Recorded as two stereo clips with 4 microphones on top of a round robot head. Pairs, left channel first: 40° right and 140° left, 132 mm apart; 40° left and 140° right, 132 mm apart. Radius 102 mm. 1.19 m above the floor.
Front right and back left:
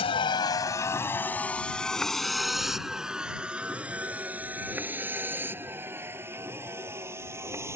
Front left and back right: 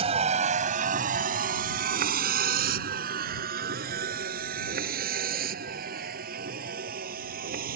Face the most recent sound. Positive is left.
turn(degrees=-150)